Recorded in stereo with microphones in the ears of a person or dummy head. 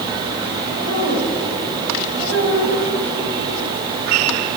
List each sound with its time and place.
0.7 s a woman speaking: 85° right, 7.5 m